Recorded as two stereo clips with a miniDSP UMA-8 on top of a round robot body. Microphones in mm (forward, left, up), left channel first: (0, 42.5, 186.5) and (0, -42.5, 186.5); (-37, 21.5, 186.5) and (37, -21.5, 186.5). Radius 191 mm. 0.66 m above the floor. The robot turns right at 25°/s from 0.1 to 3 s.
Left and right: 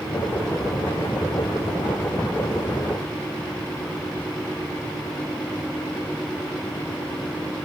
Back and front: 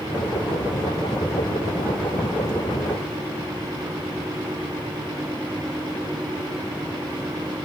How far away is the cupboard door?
No cupboard door in this recording.